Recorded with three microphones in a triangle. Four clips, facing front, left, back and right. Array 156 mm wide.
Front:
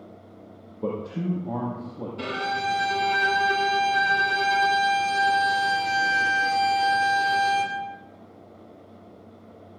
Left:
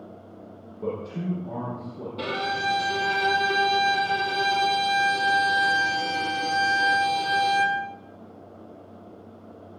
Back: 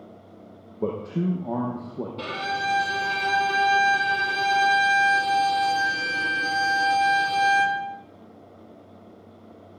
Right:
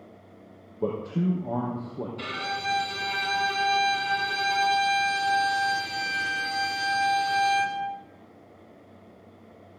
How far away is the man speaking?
About 4.5 m.